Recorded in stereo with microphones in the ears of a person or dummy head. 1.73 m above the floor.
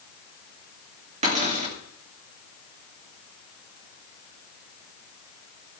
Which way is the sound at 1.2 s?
35° right (ahead or behind).